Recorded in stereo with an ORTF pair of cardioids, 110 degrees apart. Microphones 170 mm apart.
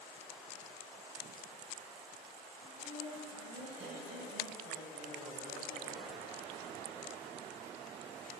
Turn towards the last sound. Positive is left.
turn(degrees=-60)